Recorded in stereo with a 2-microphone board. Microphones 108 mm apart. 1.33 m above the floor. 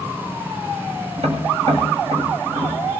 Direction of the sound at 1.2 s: 80° right.